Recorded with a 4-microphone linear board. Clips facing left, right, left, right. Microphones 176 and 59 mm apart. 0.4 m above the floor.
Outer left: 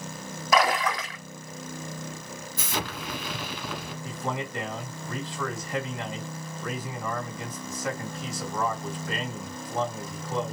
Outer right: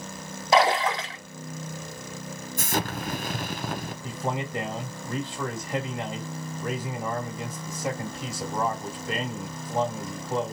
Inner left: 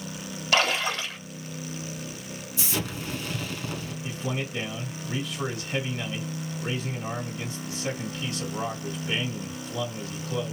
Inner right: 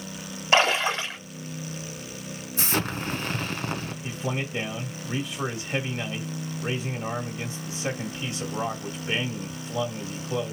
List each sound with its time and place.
0.5 s a splash: 30° right (ahead or behind), 1.2 m
2.6 s an explosion: 50° right (ahead or behind), 0.7 m
4.0 s a man speaking: 25° right (ahead or behind), 2 m